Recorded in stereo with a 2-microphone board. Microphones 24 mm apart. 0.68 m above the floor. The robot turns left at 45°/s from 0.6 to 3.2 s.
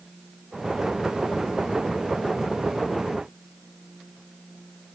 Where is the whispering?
No whispering in this recording.